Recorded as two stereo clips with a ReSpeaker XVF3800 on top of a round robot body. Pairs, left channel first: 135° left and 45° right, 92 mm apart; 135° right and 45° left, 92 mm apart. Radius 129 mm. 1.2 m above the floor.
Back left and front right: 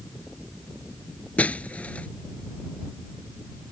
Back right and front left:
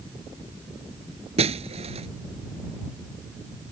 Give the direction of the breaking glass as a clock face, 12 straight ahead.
10 o'clock.